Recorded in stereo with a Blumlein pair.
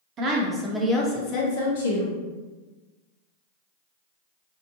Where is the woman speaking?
25° right, 0.7 m; by 2.2 s 75° left, 0.7 m.